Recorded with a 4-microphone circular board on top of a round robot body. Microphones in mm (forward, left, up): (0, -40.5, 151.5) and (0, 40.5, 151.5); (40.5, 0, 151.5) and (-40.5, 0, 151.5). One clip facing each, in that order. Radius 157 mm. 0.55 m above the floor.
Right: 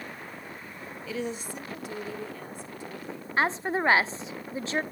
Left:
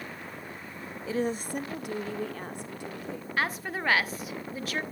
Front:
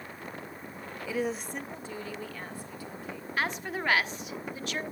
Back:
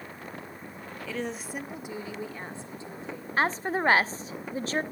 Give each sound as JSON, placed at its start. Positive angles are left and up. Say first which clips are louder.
{"t": 1.1, "sound": "a woman speaking", "louder": "left 4 dB, front 3 dB", "azimuth_deg": 65, "distance_m": 0.8}
{"t": 3.4, "sound": "a woman speaking", "louder": "right 5 dB, back 6 dB", "azimuth_deg": -140, "distance_m": 0.8}